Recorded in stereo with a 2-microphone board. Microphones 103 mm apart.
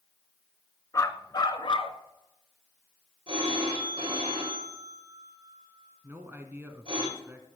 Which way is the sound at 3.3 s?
60° right (ahead or behind).